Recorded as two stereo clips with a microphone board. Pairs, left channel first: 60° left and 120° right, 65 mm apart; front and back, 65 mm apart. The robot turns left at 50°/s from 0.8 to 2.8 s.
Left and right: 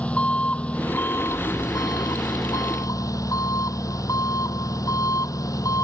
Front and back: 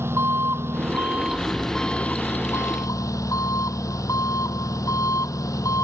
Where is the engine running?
130° left; by 5.8 s 30° left.